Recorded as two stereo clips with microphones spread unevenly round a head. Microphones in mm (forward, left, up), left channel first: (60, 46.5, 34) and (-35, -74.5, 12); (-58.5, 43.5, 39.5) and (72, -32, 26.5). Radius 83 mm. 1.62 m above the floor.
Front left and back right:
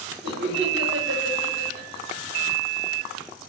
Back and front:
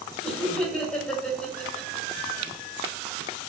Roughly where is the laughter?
Behind right.